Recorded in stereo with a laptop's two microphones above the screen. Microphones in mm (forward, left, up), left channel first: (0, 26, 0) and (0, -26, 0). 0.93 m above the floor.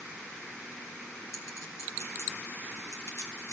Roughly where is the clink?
Left.